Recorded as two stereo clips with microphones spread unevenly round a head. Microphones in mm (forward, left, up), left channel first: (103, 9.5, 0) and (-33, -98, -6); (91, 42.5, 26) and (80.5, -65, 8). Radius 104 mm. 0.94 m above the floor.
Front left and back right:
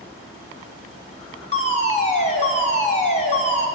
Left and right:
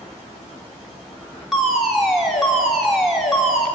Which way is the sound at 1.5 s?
10° right.